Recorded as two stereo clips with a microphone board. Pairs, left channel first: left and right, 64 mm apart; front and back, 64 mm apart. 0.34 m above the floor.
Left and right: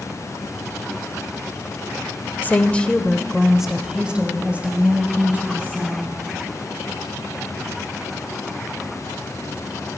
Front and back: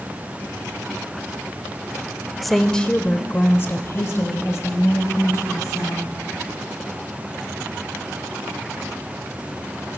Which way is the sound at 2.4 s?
90° left.